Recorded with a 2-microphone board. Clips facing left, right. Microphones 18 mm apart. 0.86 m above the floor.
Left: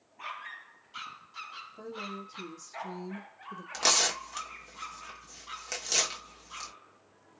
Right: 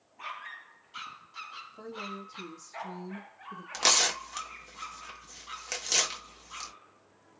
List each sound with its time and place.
1.8 s a woman speaking: 5° right (ahead or behind), 1.6 m; by 3.6 s 50° left (ahead or behind), 1.1 m
3.7 s tearing paper: 10° right (ahead or behind), 1.1 m